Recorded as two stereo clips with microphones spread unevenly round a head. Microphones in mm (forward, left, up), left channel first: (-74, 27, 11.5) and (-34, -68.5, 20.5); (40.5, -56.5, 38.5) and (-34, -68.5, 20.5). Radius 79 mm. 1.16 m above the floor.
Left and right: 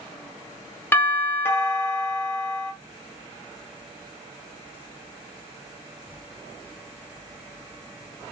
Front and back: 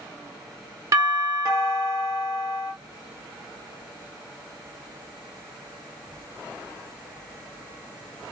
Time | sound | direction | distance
0.9 | a doorbell | 175° left | 1.1 m